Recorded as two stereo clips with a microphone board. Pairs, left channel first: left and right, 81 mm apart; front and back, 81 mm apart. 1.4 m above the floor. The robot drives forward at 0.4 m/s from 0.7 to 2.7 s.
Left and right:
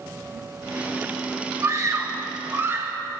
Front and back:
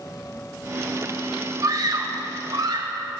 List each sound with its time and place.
1.6 s a scream: 140° right, 1.6 m; by 3.0 s 150° right, 2.0 m